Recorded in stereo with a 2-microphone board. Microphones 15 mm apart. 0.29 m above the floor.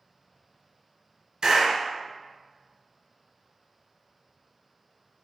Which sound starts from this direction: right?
A clap, at 1.4 s.